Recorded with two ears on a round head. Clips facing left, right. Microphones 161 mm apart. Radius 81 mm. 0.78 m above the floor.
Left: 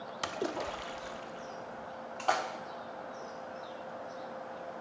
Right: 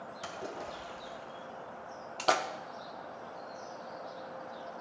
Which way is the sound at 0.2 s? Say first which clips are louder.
Left 6 dB; 65° left (ahead or behind).